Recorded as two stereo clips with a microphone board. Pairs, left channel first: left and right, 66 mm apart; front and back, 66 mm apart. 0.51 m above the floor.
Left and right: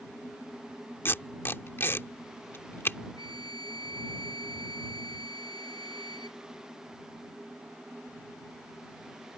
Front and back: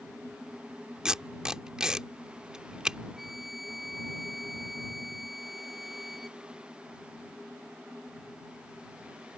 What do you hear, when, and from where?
1.1 s tape being pulled: 110° left
3.2 s a flute: 95° left